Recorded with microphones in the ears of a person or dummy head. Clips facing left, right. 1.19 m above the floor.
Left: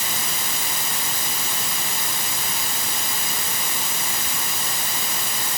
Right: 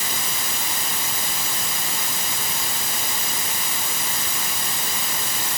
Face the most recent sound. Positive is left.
No sound to turn to.